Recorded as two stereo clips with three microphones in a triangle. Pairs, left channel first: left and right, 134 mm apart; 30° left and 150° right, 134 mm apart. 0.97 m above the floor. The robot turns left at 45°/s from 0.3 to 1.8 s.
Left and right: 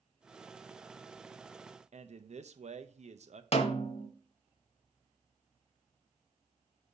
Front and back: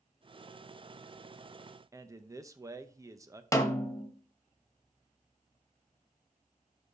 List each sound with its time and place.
1.9 s a man speaking: 85° right, 0.7 m
3.5 s a snare drum: 90° left, 1.0 m